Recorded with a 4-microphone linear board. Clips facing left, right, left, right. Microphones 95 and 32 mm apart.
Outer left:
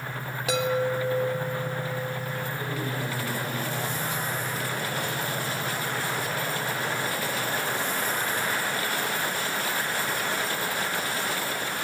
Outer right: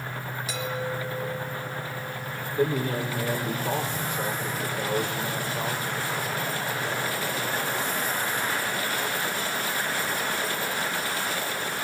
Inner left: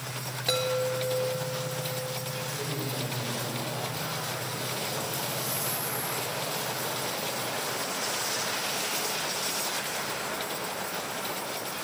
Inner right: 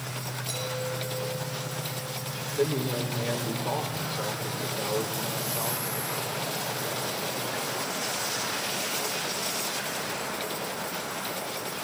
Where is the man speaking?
85° right, 6 m.